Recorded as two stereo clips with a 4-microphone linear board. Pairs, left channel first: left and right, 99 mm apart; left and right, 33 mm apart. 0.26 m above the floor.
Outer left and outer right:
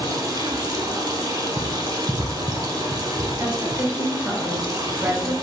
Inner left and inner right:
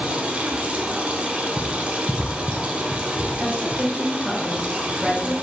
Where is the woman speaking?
15° right (ahead or behind), 1.3 m.